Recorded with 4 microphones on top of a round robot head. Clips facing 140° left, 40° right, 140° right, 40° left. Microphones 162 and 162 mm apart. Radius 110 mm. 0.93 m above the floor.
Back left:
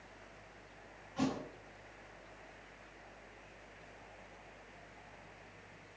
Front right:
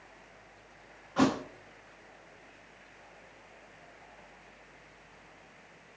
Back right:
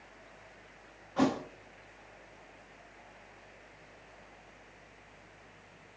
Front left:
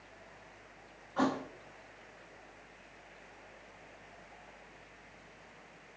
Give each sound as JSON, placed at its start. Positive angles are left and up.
{"t": 1.2, "sound": "a thud", "azimuth_deg": -70, "distance_m": 0.5}